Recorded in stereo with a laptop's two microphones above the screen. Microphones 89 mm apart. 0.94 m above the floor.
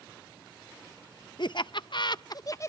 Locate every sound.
1.4 s laughter: 55° left (ahead or behind), 0.6 m; by 2.7 s 35° left (ahead or behind), 0.6 m